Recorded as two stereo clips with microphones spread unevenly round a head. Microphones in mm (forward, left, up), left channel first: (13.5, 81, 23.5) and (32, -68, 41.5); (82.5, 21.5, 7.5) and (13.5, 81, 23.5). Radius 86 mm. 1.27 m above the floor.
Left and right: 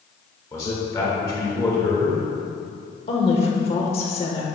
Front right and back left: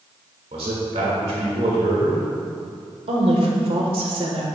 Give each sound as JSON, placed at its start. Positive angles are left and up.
{"t": 0.5, "sound": "a man speaking", "azimuth_deg": 165, "distance_m": 1.9}
{"t": 3.1, "sound": "a woman speaking", "azimuth_deg": 145, "distance_m": 1.2}